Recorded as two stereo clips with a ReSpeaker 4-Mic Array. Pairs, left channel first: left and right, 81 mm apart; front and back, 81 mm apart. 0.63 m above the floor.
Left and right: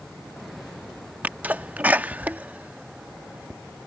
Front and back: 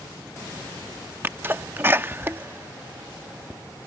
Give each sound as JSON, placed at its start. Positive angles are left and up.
{"t": 1.2, "sound": "a sneeze", "azimuth_deg": -145}